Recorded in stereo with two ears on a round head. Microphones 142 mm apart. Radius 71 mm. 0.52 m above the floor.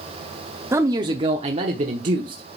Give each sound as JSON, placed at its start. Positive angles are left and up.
{"t": 0.7, "sound": "a man speaking", "side_deg": -15, "distance_m": 0.8}